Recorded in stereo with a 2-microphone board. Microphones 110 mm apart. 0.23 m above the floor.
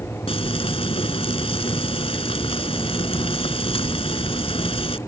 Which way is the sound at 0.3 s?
60° left (ahead or behind).